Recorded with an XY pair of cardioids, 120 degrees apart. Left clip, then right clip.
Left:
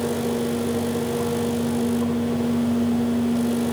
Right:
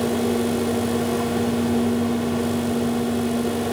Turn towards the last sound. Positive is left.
turn(degrees=-65)